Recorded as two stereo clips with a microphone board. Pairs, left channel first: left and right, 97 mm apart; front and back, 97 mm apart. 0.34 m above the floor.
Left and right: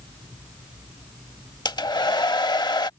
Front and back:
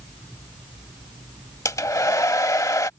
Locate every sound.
1.6 s a hair dryer: 55° left